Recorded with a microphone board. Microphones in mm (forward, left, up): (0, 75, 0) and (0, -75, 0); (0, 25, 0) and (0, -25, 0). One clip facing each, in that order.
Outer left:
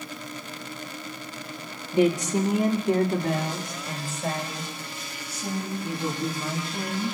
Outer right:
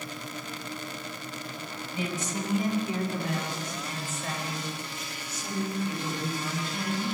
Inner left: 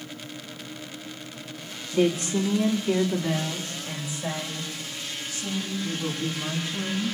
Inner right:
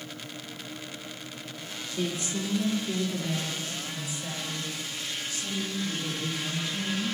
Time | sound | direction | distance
1.9 | a woman speaking | 75° left (ahead or behind) | 1.3 m